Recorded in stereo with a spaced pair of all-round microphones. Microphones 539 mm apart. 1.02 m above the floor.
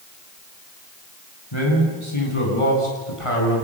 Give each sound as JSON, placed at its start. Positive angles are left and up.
{"t": 1.5, "sound": "a man speaking", "side_deg": 55, "distance_m": 9.0}